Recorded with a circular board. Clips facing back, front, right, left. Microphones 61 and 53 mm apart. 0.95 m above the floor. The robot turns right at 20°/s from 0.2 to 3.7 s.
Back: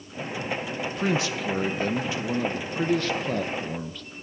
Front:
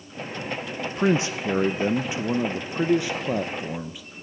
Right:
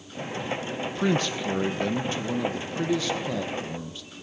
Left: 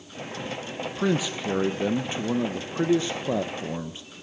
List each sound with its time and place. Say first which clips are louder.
0.8 s a man speaking: front 5 dB, even; 10° left, 0.5 m; by 4.0 s 65° left, 0.5 m